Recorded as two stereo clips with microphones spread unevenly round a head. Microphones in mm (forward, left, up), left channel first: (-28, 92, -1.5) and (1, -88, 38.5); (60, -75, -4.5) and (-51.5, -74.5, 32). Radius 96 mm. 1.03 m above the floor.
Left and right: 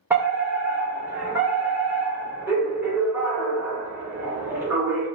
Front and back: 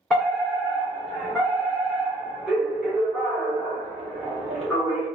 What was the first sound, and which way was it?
A fire alarm, 15° left.